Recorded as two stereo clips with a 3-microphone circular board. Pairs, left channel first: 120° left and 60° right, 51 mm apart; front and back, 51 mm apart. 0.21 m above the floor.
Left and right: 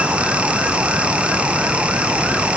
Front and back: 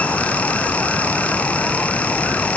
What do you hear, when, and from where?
Only background noise.